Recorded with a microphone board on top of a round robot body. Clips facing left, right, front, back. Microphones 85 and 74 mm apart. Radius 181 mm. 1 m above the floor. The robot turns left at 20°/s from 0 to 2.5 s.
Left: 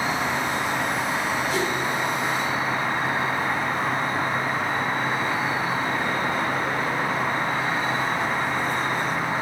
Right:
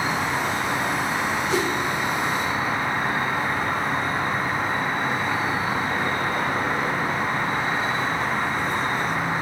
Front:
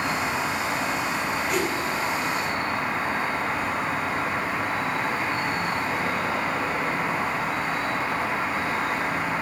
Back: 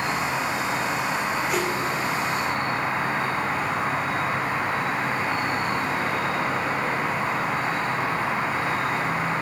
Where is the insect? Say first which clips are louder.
Right 1 dB, even; 95° right, 1.6 m; by 9.4 s 145° right, 1.6 m.